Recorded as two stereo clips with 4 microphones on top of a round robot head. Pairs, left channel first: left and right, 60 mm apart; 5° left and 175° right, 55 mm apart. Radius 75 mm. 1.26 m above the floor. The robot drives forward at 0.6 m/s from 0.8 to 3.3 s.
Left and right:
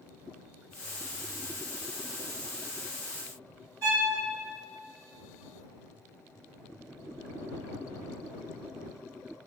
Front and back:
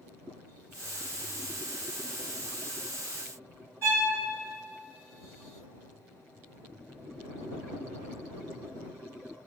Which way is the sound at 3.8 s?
130° right.